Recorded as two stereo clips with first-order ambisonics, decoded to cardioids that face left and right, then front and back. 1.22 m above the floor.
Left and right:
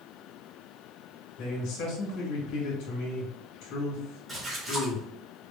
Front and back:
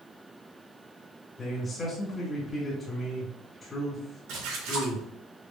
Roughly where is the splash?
Behind.